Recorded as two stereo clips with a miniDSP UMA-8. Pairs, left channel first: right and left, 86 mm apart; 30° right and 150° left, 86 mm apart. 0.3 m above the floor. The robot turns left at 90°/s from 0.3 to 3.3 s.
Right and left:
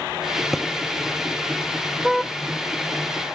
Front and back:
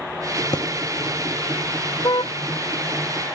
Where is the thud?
5° left; by 0.7 s 10° right.